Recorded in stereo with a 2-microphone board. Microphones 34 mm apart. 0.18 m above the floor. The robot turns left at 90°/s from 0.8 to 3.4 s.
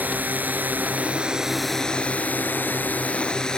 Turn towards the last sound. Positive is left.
turn(degrees=20)  # may be behind; listen again after turning